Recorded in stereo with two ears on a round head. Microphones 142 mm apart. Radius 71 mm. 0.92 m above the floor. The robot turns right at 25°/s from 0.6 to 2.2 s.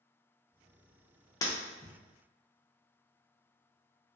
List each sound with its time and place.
1.4 s breaking glass: 25° left (ahead or behind), 0.6 m; by 1.9 s 35° left (ahead or behind), 0.6 m